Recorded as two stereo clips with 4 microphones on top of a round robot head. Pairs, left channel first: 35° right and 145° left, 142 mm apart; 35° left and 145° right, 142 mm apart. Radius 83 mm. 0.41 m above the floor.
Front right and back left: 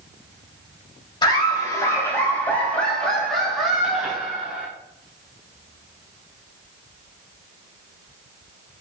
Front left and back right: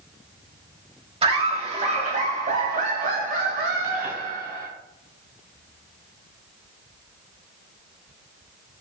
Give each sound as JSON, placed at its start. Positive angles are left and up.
{"t": 1.2, "sound": "laughter", "azimuth_deg": -95, "distance_m": 2.5}